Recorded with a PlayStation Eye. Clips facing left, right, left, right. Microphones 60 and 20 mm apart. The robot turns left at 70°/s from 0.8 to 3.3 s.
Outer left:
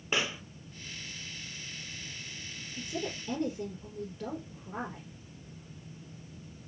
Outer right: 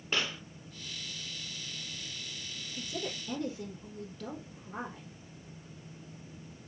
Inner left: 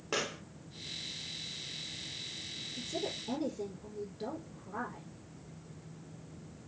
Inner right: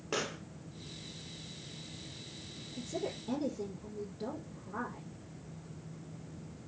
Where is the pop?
15° left (ahead or behind), 0.6 m.